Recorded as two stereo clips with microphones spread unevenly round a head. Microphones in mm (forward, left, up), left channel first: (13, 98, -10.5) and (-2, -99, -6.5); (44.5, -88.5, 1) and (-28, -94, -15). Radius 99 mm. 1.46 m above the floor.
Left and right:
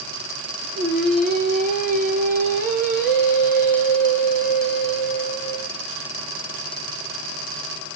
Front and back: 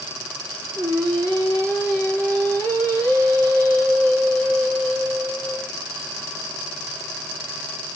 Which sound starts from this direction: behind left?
Singing, at 0.7 s.